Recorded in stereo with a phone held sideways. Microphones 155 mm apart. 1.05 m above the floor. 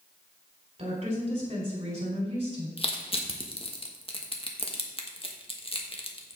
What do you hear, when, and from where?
0.8 s a woman speaking: 45° right (ahead or behind), 4 m
2.8 s crushing: 40° left (ahead or behind), 1.2 m